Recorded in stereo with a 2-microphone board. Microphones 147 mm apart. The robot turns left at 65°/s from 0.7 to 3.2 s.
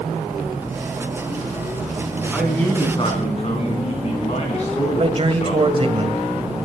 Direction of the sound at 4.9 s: 45° right (ahead or behind).